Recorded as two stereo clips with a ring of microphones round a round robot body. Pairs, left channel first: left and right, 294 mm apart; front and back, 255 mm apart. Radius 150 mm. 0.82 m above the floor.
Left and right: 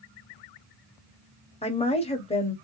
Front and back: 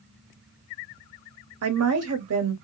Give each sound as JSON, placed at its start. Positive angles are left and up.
{"t": 1.6, "sound": "a woman speaking", "azimuth_deg": 160, "distance_m": 1.2}